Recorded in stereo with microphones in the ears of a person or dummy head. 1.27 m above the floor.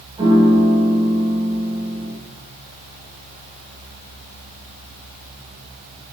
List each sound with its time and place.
0.2 s a piano: 30° right (ahead or behind), 0.9 m